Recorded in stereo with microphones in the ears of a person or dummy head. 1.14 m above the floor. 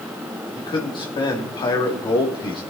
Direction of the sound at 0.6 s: 25° left (ahead or behind).